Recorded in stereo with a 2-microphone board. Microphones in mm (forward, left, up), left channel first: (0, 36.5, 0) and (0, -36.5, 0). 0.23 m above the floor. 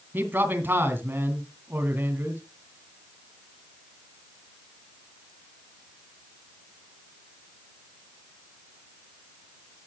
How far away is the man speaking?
About 2 m.